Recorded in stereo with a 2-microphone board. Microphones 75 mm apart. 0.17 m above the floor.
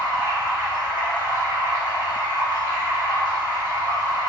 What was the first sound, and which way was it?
Running water, 65° left (ahead or behind).